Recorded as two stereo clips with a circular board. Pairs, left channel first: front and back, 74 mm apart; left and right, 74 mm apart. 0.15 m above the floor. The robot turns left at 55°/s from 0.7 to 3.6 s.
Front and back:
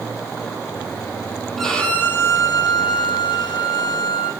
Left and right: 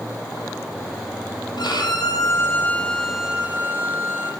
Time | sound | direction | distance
1.6 | a violin | 85° left | 2.5 m